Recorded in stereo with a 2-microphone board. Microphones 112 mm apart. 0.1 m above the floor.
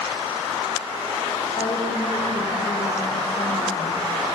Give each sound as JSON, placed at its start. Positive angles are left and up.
{"t": 1.6, "sound": "a woman speaking", "side_deg": 60, "distance_m": 6.0}